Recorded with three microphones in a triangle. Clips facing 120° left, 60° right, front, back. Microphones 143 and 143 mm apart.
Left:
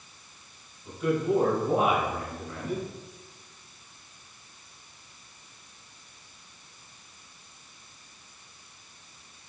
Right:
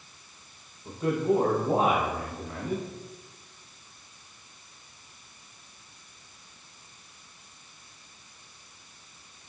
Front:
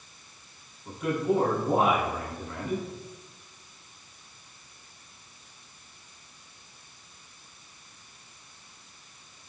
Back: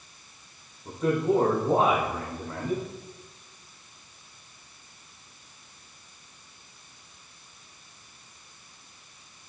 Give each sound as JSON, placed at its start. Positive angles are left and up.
{"t": 0.8, "sound": "a man speaking", "azimuth_deg": -120, "distance_m": 4.5}